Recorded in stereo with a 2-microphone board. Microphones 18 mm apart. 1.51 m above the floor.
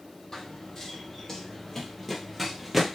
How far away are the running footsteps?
About 2 m.